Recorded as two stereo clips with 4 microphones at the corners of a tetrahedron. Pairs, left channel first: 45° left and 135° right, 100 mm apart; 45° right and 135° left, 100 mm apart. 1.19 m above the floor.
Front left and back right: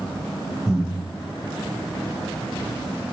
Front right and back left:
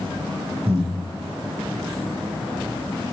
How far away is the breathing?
About 0.7 m.